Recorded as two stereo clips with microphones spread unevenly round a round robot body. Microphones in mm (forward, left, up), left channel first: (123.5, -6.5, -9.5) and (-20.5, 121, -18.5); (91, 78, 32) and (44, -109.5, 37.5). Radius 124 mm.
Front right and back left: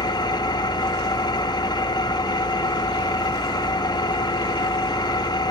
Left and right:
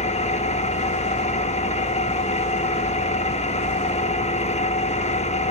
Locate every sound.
0.0 s an engine running: 25° left, 1.2 m